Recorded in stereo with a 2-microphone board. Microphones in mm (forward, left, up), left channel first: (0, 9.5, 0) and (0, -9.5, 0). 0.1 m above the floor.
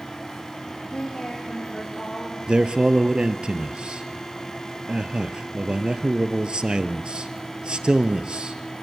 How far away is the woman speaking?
About 6 m.